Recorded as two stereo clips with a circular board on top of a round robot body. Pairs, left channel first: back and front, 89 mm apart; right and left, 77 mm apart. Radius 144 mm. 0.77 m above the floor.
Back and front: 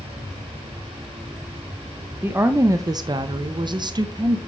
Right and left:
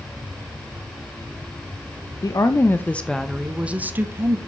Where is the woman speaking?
65° right, 0.8 m; by 4.4 s 35° left, 1.2 m.